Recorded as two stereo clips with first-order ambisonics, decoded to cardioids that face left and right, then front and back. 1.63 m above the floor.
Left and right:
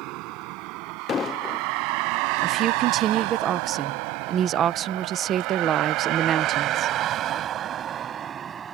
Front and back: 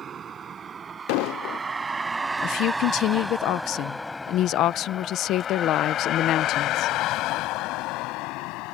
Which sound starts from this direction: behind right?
A vehicle, at 0.0 s.